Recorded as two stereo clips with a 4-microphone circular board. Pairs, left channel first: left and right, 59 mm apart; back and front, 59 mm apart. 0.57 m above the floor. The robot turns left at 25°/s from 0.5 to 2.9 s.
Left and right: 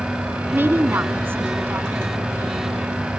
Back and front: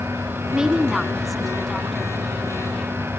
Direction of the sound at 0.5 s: 75° right.